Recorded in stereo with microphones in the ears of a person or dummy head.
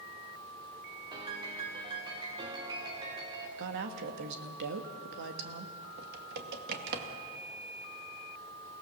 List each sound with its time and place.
1.1 s a piano: 25° right (ahead or behind), 3 m
3.6 s a woman speaking: 60° right (ahead or behind), 1.7 m
6.0 s typing on a keyboard: 55° right (ahead or behind), 2 m